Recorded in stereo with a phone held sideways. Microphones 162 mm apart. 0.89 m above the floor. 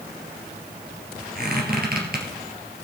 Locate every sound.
1.4 s a squeak: 65° right (ahead or behind), 2.5 m